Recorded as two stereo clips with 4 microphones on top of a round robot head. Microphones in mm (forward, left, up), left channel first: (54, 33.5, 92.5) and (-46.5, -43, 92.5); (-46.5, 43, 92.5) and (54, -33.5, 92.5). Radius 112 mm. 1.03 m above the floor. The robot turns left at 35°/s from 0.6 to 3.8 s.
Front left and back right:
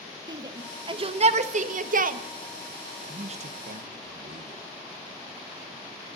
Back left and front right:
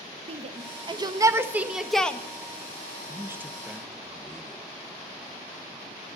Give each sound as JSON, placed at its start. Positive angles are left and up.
{"t": 0.3, "sound": "a shout", "azimuth_deg": -80, "distance_m": 1.2}
{"t": 3.1, "sound": "a man speaking", "azimuth_deg": -100, "distance_m": 1.0}